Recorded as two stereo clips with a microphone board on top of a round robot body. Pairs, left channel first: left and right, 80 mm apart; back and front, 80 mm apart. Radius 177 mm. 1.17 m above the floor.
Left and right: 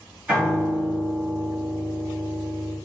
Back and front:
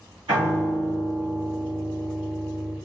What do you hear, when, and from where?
0.3 s a piano: 15° right, 0.7 m